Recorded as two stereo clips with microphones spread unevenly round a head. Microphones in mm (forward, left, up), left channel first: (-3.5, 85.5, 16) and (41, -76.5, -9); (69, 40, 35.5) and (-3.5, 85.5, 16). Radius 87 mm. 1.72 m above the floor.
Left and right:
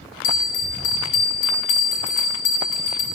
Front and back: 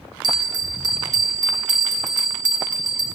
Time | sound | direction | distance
0.2 | a bell | 110° left | 0.5 m